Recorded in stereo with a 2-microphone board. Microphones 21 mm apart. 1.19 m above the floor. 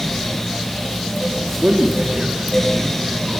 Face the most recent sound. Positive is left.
turn(degrees=-65)  # may be behind; listen again after turning